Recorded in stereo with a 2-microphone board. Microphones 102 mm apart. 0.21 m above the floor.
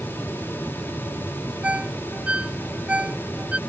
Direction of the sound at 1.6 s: 10° right (ahead or behind).